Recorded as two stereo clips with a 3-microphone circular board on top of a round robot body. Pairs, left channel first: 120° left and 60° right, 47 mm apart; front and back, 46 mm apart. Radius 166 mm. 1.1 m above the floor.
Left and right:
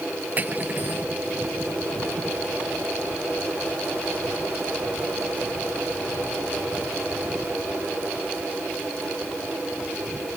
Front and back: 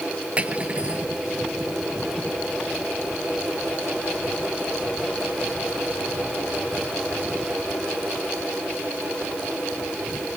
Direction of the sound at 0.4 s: 115° right.